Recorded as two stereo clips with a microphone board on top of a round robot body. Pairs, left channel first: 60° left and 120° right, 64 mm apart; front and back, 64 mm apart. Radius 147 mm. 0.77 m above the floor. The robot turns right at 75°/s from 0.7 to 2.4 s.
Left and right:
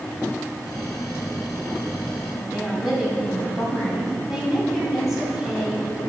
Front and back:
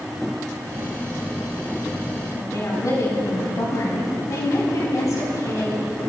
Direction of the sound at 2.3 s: 40° right.